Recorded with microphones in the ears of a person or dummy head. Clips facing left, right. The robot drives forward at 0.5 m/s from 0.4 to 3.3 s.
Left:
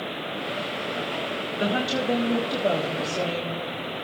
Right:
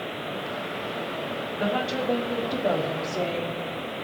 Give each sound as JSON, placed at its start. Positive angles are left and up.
{"t": 1.6, "sound": "a woman speaking", "side_deg": 25, "distance_m": 1.1}